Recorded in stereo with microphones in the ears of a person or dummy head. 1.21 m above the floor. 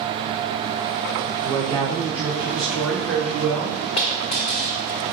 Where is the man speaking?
10° right (ahead or behind), 3.5 m; by 3.8 s 5° left (ahead or behind), 1.9 m.